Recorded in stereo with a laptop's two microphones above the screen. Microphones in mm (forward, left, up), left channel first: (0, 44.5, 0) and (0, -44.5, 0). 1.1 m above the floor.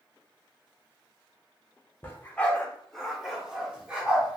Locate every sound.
2.0 s a dog barking: 25° left (ahead or behind), 0.8 m; by 4.4 s 15° right (ahead or behind), 1.6 m